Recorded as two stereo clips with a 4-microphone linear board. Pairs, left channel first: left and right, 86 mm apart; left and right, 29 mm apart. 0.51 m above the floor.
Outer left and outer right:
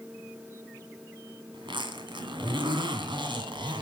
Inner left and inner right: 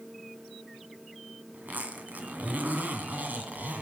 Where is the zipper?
75° right (ahead or behind), 2.5 m.